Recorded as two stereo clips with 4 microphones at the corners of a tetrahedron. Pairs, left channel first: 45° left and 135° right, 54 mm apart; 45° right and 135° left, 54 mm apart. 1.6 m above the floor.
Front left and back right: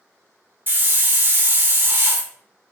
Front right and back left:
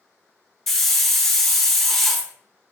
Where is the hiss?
130° right, 0.7 m.